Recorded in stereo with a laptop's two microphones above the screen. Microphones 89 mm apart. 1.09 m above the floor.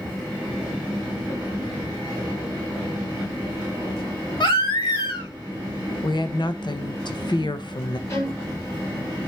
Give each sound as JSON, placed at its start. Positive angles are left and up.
{"t": 4.4, "sound": "a baby crying", "side_deg": 65, "distance_m": 1.5}
{"t": 6.0, "sound": "a woman speaking", "side_deg": 55, "distance_m": 0.7}
{"t": 8.1, "sound": "a violin", "side_deg": 45, "distance_m": 6.5}